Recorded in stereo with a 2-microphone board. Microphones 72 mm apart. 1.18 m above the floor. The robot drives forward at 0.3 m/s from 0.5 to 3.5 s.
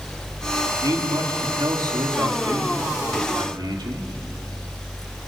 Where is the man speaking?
60° right (ahead or behind), 3 m; by 4.0 s 75° right (ahead or behind), 2.5 m.